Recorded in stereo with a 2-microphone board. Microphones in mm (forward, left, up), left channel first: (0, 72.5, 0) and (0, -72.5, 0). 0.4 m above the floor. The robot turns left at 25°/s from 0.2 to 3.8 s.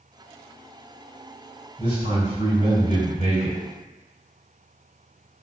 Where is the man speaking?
30° right, 2.0 m; by 3.6 s 75° right, 2.0 m.